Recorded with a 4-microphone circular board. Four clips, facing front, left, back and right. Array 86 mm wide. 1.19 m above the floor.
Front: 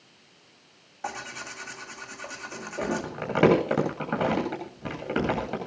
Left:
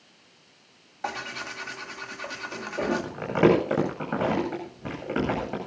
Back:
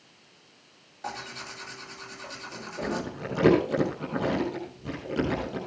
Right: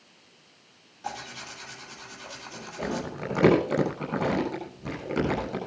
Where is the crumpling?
35° left, 9 m.